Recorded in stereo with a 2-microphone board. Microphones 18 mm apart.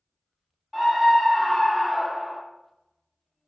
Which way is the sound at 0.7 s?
20° left (ahead or behind).